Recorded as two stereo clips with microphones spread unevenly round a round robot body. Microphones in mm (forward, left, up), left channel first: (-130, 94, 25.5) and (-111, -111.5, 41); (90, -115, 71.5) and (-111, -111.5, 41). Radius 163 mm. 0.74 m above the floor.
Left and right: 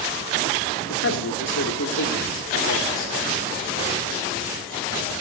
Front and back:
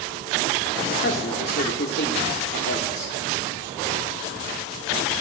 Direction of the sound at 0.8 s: 55° left.